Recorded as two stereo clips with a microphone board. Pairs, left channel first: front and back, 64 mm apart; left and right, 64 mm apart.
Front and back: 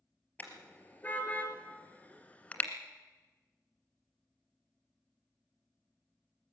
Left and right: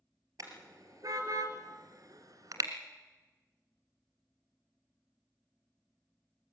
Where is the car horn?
65° right, 3 m; by 2.7 s 70° right, 1.7 m.